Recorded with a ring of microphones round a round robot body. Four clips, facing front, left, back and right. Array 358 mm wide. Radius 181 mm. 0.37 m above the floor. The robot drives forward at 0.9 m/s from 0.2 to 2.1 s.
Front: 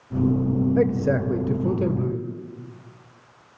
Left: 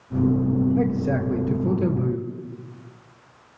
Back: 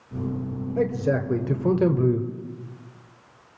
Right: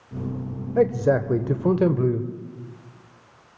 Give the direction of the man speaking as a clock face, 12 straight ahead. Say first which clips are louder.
Right 3 dB, back 2 dB; 2 o'clock.